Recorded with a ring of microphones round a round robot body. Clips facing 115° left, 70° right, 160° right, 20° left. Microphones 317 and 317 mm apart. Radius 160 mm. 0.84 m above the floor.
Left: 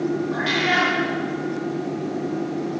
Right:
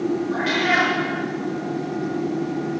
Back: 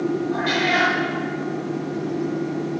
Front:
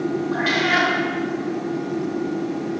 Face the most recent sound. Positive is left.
turn(degrees=30)